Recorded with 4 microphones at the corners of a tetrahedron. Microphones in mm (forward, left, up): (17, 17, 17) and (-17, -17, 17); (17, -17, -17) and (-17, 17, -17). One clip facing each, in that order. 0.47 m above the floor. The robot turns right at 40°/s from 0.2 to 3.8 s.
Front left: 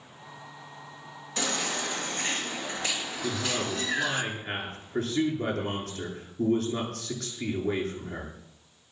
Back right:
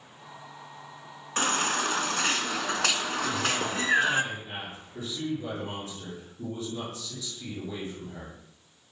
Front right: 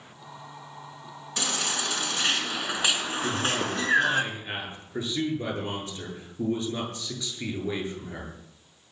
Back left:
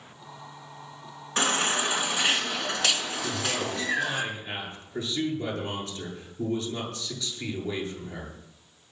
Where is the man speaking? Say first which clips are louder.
Even, front right 3 dB; 5° right, 8.5 m; by 8.3 s 20° left, 8.5 m.